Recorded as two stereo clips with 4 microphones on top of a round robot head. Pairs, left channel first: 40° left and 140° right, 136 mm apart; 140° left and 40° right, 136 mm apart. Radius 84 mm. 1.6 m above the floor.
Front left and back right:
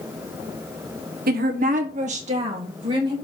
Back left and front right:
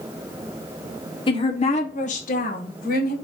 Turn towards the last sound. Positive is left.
turn(degrees=165)